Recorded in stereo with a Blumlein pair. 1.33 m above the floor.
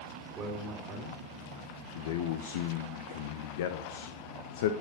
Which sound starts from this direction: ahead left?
A man speaking, at 1.9 s.